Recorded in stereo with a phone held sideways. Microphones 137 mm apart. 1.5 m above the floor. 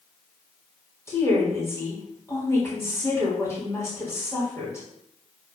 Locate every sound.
1.1 s a woman speaking: 20° left (ahead or behind), 3.5 m